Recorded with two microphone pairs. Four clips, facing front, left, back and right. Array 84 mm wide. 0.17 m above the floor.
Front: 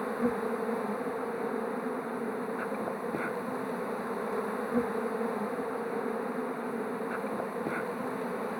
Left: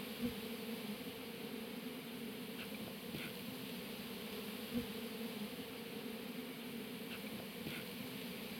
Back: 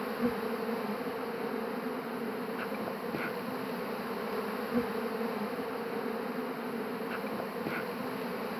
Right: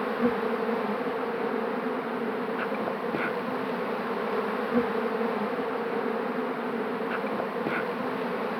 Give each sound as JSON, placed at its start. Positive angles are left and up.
{"t": 0.0, "sound": "an insect", "azimuth_deg": -80}